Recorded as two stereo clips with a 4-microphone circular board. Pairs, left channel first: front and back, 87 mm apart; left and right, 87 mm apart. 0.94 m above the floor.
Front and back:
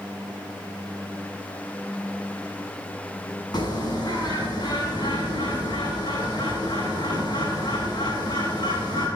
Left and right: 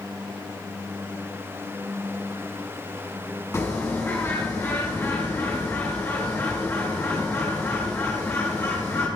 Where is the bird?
30° left, 7 m.